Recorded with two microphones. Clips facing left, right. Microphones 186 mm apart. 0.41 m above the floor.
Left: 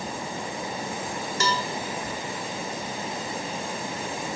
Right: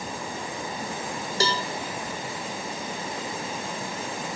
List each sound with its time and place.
1.4 s a cowbell: 35° right (ahead or behind), 1.3 m